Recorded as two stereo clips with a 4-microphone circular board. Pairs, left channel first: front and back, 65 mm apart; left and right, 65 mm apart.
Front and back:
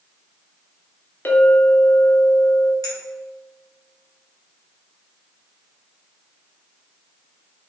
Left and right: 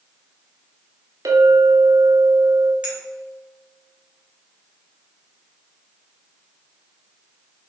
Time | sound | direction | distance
1.2 | a clink | 60° right | 0.6 m
2.8 | a clink | 15° right | 1.1 m